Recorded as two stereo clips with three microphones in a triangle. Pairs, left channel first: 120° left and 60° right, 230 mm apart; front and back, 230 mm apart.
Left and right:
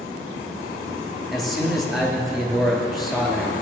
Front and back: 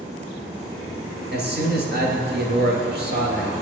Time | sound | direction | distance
1.3 | a man speaking | 150° right | 3 m